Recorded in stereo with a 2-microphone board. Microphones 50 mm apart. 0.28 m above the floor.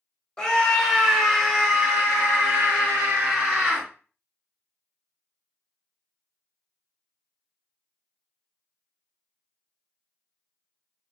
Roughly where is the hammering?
No hammering in this recording.